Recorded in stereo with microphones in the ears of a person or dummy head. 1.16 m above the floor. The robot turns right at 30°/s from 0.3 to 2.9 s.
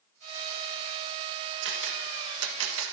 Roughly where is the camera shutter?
Right.